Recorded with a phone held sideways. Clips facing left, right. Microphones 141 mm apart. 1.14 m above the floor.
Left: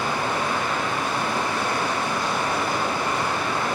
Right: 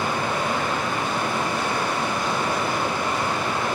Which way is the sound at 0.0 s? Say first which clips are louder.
Even; 25° right (ahead or behind).